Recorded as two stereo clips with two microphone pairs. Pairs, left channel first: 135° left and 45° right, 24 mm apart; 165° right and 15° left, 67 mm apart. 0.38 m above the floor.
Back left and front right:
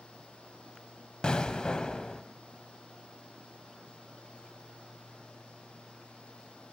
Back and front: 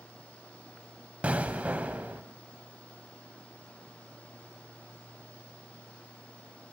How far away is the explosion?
About 1.4 m.